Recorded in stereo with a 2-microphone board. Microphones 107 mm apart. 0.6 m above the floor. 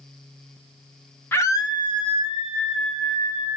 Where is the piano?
I don't hear a piano.